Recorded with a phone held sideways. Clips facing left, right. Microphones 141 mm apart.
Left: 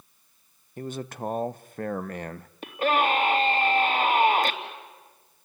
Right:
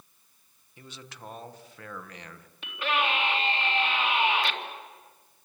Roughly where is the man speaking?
Left.